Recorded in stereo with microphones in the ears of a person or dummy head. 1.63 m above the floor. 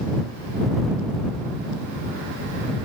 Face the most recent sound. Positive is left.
No sound to turn to.